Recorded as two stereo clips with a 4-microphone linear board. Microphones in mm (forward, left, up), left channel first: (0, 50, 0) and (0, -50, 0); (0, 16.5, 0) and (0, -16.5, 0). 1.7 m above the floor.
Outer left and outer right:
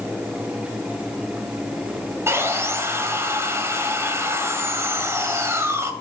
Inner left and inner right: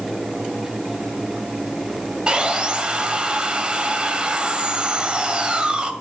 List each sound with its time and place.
2.3 s sawing: 25° right (ahead or behind), 1.7 m